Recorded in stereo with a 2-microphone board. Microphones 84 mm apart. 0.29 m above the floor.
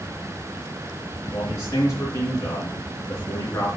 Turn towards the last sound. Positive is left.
turn(degrees=35)  # may be behind; listen again after turning